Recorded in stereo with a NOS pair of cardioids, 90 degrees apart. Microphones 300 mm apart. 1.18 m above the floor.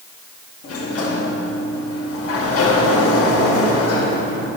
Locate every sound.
0.6 s a sliding door: 55° left, 1.0 m